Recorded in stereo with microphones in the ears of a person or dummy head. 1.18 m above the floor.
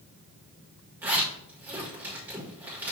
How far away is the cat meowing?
I don't hear a cat meowing.